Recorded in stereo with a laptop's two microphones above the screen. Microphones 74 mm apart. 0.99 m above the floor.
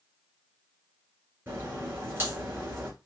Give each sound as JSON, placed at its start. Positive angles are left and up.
{"t": 1.5, "sound": "a crack", "side_deg": -30, "distance_m": 3.0}